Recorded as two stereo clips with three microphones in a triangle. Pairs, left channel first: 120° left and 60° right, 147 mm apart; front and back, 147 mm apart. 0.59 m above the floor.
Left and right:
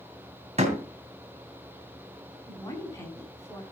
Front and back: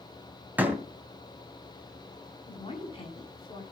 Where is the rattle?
No rattle in this recording.